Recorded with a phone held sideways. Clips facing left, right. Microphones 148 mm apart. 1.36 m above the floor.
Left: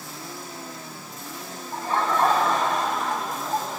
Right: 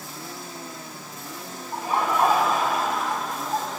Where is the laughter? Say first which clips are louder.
Even; 15° right (ahead or behind), 6 m; by 3.8 s 5° left (ahead or behind), 6 m.